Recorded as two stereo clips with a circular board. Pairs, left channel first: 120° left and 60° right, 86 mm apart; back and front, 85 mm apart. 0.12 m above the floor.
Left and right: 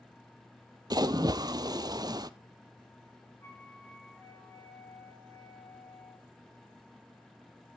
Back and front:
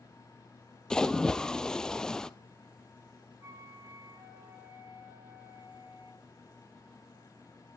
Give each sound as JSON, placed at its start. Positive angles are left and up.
{"t": 0.9, "sound": "a splash", "azimuth_deg": -100, "distance_m": 0.6}
{"t": 3.4, "sound": "a flute", "azimuth_deg": 60, "distance_m": 5.0}